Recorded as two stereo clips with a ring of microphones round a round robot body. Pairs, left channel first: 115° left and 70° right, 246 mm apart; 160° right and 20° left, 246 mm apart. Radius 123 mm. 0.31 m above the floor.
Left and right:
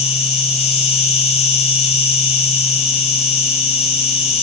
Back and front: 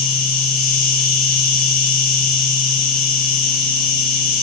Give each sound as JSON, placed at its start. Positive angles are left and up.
{"t": 0.0, "sound": "an insect", "azimuth_deg": 165, "distance_m": 2.5}